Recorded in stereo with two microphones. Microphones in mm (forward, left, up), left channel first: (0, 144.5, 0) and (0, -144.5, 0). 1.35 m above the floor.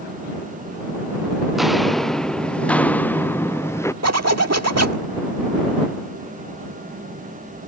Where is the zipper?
60° right (ahead or behind).